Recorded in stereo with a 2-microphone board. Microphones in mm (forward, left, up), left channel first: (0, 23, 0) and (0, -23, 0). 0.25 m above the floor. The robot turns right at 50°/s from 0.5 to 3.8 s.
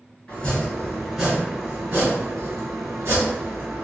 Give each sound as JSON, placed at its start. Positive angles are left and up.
{"t": 0.3, "sound": "chopping", "azimuth_deg": 150, "distance_m": 1.9}